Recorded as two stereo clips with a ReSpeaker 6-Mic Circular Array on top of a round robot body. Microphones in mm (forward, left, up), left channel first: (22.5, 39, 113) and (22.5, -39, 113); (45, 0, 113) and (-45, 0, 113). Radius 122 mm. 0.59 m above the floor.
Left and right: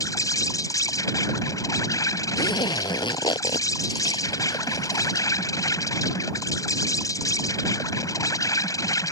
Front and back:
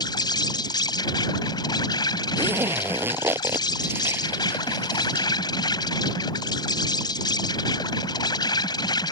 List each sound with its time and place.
0.0 s an insect: 45° left
2.4 s a zipper: 115° left